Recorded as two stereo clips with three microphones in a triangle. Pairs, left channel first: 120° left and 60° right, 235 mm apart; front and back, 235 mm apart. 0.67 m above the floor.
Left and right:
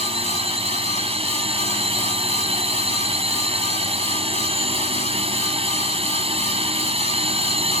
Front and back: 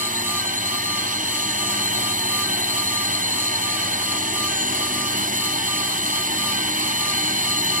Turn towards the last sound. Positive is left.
turn(degrees=-125)